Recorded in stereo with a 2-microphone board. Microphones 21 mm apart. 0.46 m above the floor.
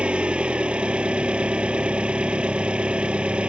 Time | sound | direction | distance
0.0 | an engine running | 85° right | ?